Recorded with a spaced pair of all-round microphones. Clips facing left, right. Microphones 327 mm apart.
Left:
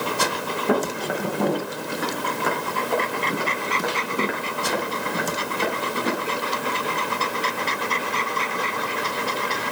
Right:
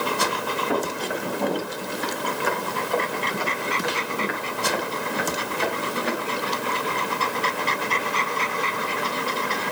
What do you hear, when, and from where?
0.7 s footsteps: 75° left (ahead or behind), 6 m; by 6.1 s 50° left (ahead or behind), 7.5 m